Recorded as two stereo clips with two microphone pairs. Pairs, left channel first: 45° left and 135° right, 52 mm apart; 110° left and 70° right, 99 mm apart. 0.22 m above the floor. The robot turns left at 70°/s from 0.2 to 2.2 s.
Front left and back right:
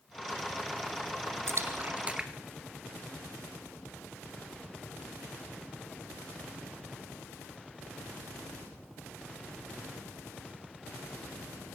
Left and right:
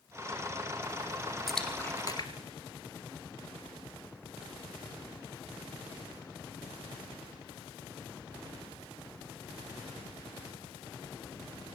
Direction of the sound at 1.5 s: 160° right.